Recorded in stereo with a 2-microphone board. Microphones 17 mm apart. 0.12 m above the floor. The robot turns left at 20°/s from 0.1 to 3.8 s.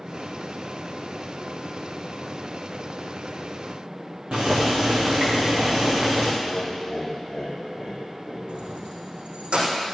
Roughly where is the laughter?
Left.